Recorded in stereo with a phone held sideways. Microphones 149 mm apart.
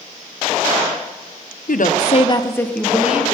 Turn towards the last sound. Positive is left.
turn(degrees=-15)  # may be behind; listen again after turning